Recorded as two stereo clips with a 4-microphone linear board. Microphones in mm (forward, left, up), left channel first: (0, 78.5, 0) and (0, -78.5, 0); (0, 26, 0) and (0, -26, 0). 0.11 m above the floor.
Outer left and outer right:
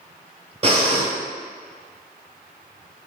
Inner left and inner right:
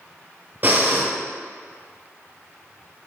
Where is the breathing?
40° right (ahead or behind), 1.1 m.